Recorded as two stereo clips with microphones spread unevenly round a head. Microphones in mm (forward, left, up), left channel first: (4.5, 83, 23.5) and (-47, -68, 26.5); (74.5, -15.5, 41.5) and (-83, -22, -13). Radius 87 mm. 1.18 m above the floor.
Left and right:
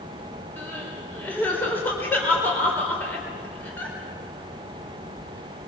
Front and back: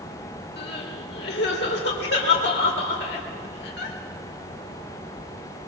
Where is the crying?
10° right, 4 m.